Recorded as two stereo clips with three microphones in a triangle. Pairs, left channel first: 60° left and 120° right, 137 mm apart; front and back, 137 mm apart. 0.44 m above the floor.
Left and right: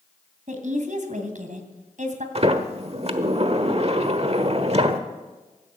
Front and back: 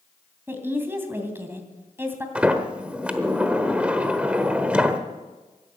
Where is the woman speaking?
105° right, 2.5 m.